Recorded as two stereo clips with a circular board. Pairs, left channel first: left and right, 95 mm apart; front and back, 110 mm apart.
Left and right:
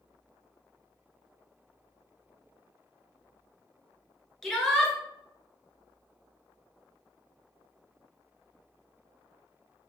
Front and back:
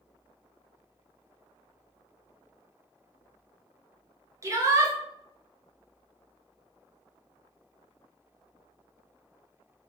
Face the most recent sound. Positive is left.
turn(degrees=175)